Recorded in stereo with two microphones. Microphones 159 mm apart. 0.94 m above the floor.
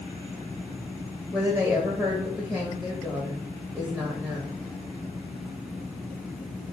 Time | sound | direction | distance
1.3 | a woman speaking | centre (ahead or behind) | 1.1 m